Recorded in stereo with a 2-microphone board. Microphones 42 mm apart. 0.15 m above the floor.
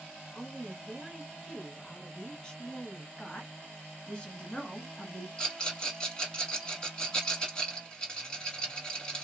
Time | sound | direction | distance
0.3 | a woman speaking | 20° left (ahead or behind) | 1.4 m
3.2 | a woman speaking | 25° left (ahead or behind) | 2 m
5.4 | a rattle | 20° left (ahead or behind) | 1.6 m